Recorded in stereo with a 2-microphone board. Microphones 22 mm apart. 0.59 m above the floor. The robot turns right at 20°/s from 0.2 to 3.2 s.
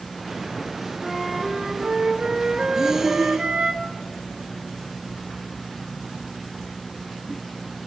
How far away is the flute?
About 4 m.